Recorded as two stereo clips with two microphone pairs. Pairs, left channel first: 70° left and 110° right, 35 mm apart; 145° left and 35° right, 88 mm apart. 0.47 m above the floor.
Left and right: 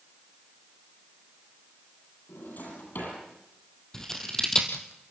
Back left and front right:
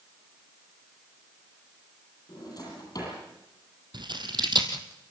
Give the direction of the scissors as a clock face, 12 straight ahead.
12 o'clock.